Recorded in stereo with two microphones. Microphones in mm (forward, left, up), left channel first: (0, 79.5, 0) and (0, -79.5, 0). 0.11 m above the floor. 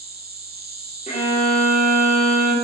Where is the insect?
80° right, 1.1 m.